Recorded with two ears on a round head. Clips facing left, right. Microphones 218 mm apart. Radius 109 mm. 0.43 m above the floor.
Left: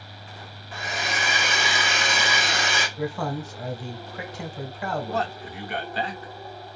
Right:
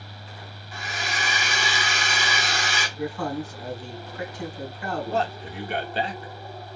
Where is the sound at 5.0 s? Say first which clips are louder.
Right 2 dB; 25° right (ahead or behind), 0.7 m.